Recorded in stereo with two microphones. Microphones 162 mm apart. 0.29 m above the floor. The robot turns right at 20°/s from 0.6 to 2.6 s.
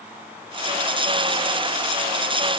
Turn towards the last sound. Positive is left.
No sound to turn to.